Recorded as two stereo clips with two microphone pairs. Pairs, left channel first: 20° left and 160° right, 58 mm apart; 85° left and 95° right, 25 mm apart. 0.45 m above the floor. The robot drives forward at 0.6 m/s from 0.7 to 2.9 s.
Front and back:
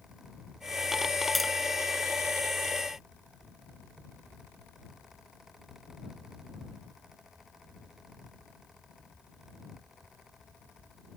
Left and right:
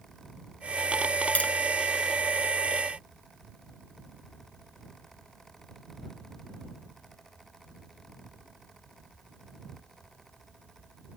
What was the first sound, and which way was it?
Tapping, 110° left.